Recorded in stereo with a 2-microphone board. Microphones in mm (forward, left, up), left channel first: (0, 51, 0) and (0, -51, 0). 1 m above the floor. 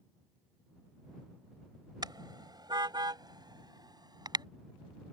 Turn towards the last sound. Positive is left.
turn(degrees=-40)  # may be behind; listen again after turning